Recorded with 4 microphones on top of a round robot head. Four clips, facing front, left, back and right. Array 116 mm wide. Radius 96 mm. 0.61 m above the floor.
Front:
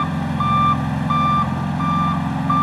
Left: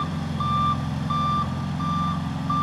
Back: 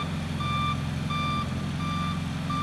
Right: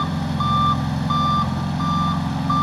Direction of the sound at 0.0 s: 20° right.